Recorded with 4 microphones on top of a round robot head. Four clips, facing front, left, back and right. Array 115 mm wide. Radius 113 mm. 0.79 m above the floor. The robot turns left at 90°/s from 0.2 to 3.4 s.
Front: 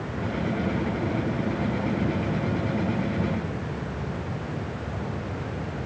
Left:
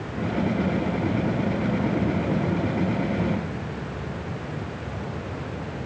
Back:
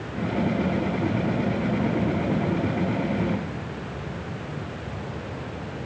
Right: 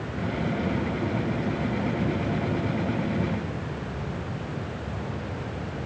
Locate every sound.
Only background noise.